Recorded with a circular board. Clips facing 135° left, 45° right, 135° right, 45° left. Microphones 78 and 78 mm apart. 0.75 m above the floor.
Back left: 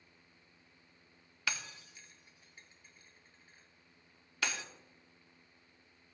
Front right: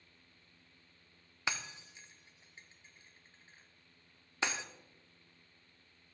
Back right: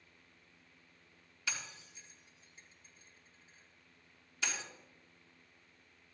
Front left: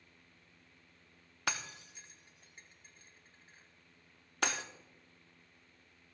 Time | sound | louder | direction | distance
1.5 | breaking glass | front right 1 dB, front left 5 dB | 20° left | 1.0 m